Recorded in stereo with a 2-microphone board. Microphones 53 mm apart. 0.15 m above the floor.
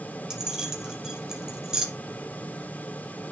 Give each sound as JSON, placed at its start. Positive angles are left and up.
{"t": 0.3, "sound": "keys jangling", "side_deg": -10, "distance_m": 1.9}